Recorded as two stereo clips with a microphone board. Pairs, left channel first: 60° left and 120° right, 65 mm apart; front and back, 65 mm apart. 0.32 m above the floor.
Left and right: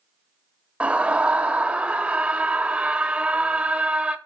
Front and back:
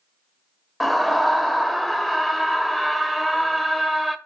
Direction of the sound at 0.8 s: 90° right.